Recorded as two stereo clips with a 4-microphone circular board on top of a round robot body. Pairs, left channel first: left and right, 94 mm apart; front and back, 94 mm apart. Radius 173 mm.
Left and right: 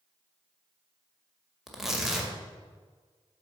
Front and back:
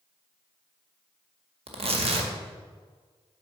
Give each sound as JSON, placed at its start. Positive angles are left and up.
{"t": 1.7, "sound": "tearing paper", "azimuth_deg": -175, "distance_m": 1.9}